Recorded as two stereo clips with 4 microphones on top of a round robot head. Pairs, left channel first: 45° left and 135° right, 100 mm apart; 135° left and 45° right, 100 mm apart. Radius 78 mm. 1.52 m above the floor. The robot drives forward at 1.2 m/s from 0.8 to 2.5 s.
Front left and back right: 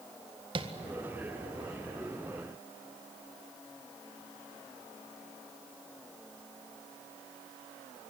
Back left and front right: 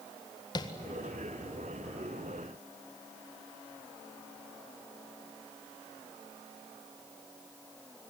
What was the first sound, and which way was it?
Tapping, 175° right.